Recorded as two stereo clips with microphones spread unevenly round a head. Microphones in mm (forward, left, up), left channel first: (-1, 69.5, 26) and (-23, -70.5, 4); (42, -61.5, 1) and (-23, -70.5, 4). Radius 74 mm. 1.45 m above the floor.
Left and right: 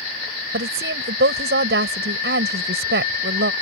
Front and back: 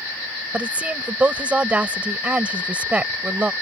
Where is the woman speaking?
100° right.